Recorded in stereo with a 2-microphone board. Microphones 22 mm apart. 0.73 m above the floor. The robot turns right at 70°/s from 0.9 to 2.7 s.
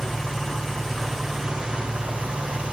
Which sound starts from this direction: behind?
An engine running, at 0.0 s.